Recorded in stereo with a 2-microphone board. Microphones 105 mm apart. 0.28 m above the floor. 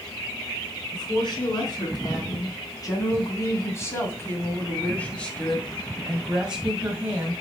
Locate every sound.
0.9 s a woman speaking: 50° left (ahead or behind), 3.5 m; by 7.4 s 20° right (ahead or behind), 2 m